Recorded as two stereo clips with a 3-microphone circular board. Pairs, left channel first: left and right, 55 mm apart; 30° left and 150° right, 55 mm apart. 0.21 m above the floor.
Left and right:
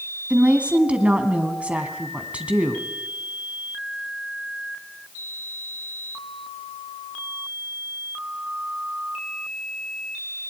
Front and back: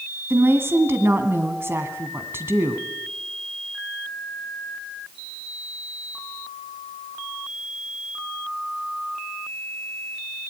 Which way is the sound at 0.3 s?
145° right.